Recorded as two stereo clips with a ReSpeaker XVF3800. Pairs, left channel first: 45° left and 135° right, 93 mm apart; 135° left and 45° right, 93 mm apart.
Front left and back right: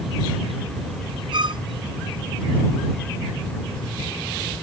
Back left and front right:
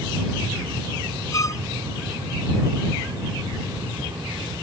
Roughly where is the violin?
Behind.